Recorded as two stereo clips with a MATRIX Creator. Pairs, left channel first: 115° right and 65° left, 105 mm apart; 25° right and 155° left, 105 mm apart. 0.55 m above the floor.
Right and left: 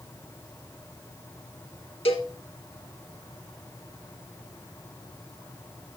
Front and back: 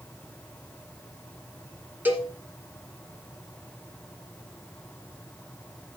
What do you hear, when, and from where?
2.0 s a cowbell: 130° right, 1.8 m